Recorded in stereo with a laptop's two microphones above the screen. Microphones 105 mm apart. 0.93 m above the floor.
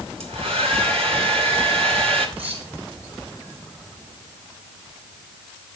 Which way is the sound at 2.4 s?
70° right (ahead or behind).